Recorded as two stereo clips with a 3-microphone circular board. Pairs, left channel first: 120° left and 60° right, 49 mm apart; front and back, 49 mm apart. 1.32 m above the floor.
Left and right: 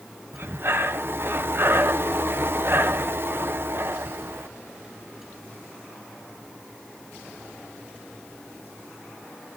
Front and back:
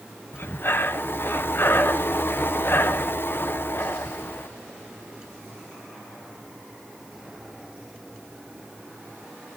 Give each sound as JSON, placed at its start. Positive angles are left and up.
{"t": 0.3, "sound": "breathing", "azimuth_deg": -30, "distance_m": 1.0}